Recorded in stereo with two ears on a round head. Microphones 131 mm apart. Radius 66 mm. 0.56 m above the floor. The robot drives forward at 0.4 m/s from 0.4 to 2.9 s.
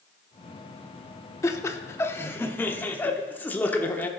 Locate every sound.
1.4 s laughter: 20° left (ahead or behind), 0.6 m; by 4.1 s 15° left (ahead or behind), 0.9 m